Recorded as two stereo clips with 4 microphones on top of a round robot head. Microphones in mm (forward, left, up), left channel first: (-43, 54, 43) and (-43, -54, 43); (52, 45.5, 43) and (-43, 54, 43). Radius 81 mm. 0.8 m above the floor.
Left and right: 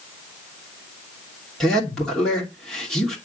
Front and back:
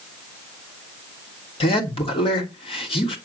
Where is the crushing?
No crushing in this recording.